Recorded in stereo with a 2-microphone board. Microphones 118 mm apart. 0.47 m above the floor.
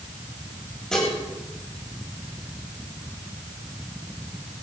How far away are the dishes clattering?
About 7.5 m.